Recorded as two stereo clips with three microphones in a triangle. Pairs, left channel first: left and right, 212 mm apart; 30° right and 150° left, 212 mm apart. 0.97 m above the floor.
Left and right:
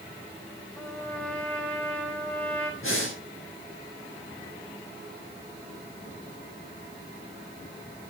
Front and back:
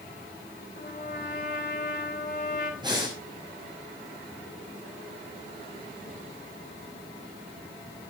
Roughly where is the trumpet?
Ahead.